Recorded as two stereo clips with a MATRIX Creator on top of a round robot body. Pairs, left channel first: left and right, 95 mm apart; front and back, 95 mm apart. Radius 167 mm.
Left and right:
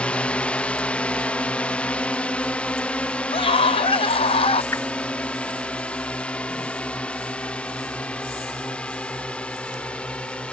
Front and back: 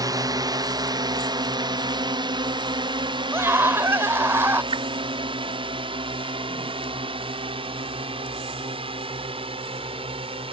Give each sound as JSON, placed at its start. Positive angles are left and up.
{"t": 0.0, "sound": "a drone", "azimuth_deg": 160}
{"t": 3.3, "sound": "a scream", "azimuth_deg": 115}
{"t": 4.7, "sound": "a whoosh", "azimuth_deg": 155}